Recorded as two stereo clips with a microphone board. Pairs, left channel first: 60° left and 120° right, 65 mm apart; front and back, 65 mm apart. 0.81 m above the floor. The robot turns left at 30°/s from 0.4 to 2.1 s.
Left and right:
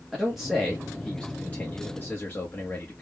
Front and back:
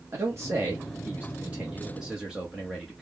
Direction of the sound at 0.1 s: 150° left.